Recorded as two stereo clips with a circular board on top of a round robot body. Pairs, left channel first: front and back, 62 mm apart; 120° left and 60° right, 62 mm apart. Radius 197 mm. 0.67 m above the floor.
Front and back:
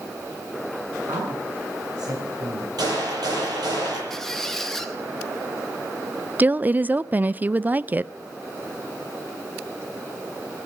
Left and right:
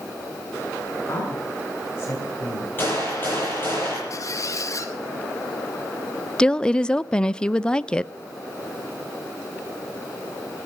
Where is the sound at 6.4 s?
Straight behind, 0.6 m.